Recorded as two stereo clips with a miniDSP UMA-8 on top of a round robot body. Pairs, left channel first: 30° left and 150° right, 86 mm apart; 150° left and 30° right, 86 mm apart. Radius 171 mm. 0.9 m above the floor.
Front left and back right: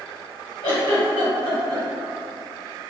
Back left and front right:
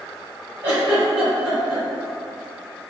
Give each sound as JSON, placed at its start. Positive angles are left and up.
{"t": 0.6, "sound": "a giggle", "azimuth_deg": 25, "distance_m": 0.9}